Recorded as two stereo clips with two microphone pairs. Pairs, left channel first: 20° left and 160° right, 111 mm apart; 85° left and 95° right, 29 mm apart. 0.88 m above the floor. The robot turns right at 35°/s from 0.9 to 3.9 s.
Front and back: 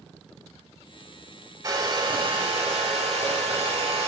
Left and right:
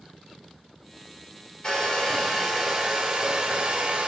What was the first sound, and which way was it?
A hair dryer, 140° left.